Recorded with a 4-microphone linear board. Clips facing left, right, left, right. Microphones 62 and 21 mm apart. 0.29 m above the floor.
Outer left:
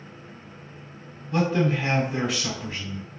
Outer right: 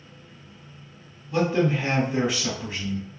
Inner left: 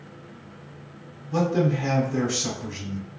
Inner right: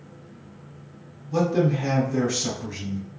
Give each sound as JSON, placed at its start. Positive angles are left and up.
{"t": 1.3, "sound": "a man speaking", "side_deg": 0, "distance_m": 1.2}